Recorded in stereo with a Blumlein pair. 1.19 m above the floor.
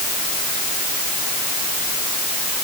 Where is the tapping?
I don't hear tapping.